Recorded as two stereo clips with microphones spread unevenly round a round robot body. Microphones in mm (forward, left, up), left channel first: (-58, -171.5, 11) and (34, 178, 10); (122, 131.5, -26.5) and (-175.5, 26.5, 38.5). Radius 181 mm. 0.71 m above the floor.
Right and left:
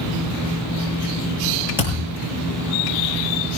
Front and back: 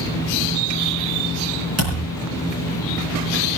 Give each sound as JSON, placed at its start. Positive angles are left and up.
{"t": 1.8, "sound": "a thud", "azimuth_deg": 160, "distance_m": 7.5}